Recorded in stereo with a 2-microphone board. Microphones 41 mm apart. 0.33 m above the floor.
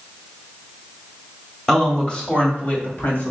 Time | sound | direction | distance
1.7 | a woman speaking | 5° left (ahead or behind) | 1.2 m